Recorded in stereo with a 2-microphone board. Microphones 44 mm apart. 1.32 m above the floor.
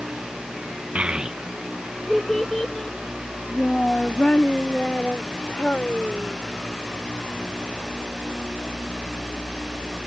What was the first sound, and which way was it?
A child speaking, 30° right (ahead or behind).